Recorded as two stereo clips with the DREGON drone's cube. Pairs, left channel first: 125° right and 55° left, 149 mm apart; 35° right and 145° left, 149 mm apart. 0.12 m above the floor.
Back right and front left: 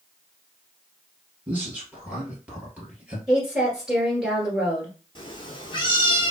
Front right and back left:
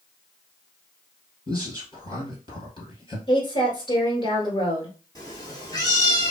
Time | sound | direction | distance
1.5 | a man speaking | 20° right | 1.9 m
3.3 | a woman speaking | 25° right | 1.8 m
5.2 | a cat meowing | 85° right | 1.1 m